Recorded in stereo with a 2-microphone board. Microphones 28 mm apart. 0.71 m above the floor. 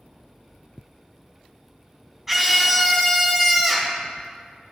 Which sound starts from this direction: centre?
A scream, at 2.3 s.